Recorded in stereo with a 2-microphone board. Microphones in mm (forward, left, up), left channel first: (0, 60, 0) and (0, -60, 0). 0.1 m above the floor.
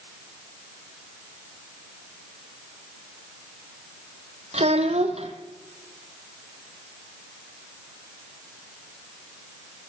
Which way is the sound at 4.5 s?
65° right (ahead or behind).